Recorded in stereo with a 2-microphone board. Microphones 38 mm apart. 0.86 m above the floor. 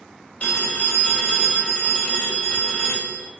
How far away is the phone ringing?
About 2.5 m.